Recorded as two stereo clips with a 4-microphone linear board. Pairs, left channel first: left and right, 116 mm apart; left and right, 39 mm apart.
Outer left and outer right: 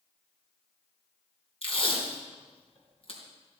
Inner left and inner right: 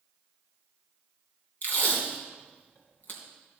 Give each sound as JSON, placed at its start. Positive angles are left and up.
{"t": 1.6, "sound": "tape being pulled", "side_deg": 55, "distance_m": 3.0}